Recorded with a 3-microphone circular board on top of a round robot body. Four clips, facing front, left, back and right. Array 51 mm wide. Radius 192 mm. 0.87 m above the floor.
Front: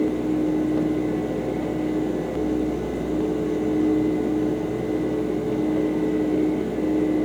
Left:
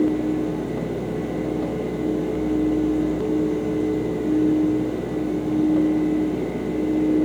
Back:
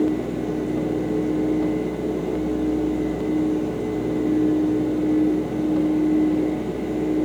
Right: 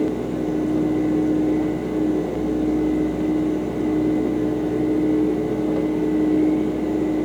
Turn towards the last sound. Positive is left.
No sound to turn to.